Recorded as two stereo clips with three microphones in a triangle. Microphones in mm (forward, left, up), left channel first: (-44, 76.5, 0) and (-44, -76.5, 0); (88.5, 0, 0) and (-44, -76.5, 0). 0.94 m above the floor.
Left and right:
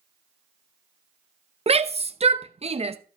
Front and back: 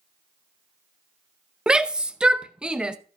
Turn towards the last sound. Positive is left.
turn(degrees=-65)